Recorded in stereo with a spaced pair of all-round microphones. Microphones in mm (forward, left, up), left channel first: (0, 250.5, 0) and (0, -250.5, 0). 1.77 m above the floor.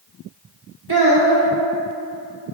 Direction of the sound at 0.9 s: 50° right (ahead or behind).